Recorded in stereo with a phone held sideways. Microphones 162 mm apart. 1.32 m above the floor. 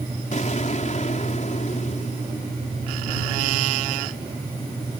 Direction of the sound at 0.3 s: 50° left (ahead or behind).